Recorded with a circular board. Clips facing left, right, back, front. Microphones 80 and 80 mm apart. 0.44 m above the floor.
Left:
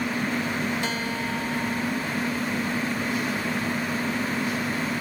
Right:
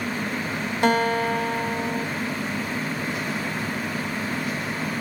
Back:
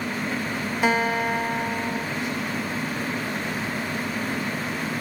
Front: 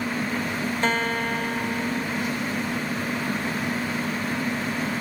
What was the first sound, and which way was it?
A guitar, 100° right.